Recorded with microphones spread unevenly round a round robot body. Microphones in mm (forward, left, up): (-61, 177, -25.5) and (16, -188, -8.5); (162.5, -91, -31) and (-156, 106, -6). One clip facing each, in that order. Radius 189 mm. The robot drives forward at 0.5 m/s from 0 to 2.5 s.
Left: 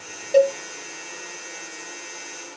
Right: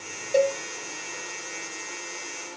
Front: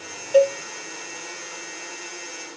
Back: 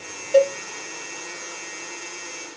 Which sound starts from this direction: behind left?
A cowbell, at 0.3 s.